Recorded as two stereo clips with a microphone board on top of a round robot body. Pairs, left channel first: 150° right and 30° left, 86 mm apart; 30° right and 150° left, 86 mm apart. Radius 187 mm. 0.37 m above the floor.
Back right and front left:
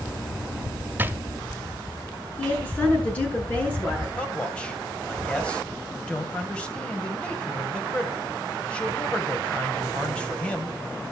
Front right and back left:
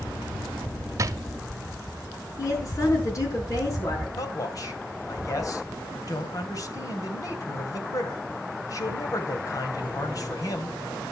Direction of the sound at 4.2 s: 75° right.